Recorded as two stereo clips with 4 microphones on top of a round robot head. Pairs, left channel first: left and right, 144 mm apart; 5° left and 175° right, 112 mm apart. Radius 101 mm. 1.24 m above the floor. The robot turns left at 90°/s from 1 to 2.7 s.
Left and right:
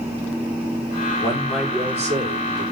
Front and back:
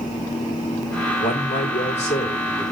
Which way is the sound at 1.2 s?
30° left.